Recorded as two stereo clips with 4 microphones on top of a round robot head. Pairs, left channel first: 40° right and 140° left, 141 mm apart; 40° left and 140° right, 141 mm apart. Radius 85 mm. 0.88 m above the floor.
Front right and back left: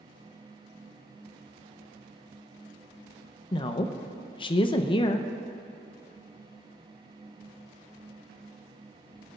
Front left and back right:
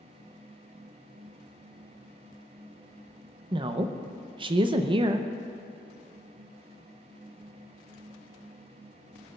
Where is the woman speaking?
90° right, 0.6 m.